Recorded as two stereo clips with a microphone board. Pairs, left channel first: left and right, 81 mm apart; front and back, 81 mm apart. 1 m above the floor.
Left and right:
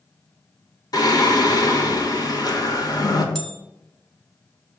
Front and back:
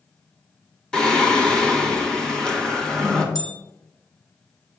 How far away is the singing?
About 1.1 m.